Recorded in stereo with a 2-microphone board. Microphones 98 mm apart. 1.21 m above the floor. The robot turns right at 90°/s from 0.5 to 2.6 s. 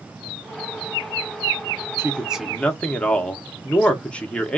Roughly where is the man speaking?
Ahead right.